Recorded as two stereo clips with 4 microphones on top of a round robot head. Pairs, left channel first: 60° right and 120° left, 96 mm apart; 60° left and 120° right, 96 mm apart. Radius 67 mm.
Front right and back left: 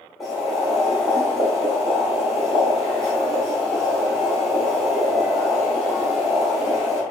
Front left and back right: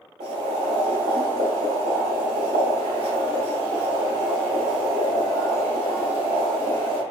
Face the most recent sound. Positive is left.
turn(degrees=-150)